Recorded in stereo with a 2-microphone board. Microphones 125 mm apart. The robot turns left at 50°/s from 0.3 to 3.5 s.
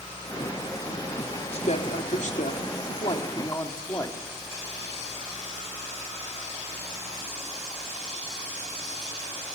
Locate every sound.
1.5 s a woman speaking: 125° left, 2.5 m; by 4.2 s 25° left, 2.5 m